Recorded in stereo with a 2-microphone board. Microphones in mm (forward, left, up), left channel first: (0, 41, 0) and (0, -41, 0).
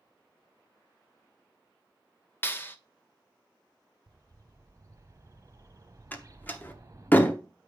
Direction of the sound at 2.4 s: 25° left (ahead or behind).